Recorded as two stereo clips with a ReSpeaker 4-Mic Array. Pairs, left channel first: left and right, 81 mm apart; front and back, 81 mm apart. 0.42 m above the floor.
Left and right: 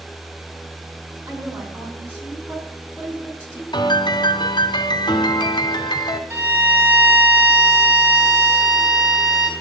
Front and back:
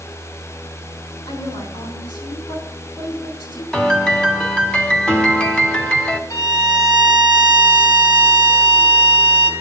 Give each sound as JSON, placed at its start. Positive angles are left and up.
{"t": 1.3, "sound": "a woman speaking", "azimuth_deg": -20, "distance_m": 5.5}
{"t": 3.7, "sound": "a piano", "azimuth_deg": 80, "distance_m": 1.5}
{"t": 6.3, "sound": "a violin", "azimuth_deg": -30, "distance_m": 3.0}